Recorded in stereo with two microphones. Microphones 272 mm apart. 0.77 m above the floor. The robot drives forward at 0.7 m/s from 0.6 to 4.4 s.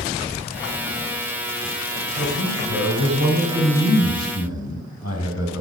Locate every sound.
2.2 s a man speaking: 80° left, 4.5 m; by 5.6 s 65° left (ahead or behind), 5 m